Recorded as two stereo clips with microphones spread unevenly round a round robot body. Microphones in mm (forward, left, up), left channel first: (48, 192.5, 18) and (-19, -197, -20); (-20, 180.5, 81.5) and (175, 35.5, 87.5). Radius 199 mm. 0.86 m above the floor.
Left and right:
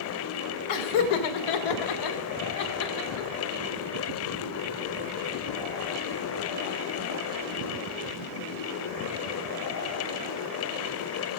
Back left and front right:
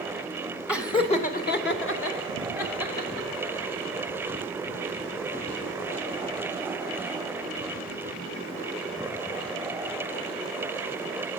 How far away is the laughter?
About 1.2 m.